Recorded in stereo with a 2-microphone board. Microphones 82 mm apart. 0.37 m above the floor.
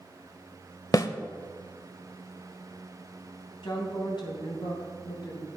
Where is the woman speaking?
65° left (ahead or behind), 3 m.